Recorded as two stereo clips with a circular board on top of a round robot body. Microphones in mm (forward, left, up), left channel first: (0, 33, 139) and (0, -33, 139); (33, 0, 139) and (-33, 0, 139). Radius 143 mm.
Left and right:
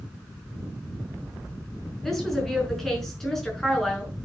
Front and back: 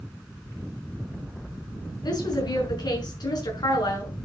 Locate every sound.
2.0 s a woman speaking: 5° left, 5.5 m